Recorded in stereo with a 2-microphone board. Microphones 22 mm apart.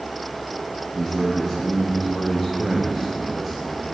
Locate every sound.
0.9 s a man speaking: 5° right (ahead or behind), 1.1 m